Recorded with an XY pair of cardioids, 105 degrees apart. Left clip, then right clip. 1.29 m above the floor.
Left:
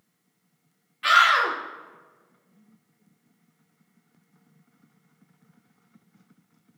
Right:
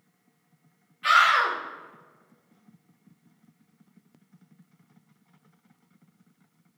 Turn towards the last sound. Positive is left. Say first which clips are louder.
# left 1 dB
turn(degrees=45)